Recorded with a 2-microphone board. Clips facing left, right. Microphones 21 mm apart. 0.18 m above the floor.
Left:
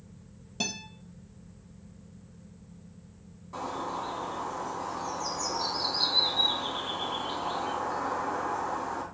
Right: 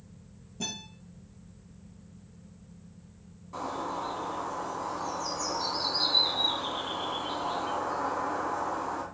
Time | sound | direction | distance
0.6 | a guitar | 75° left (ahead or behind) | 1.7 m
3.5 | a bird | 5° left (ahead or behind) | 1.4 m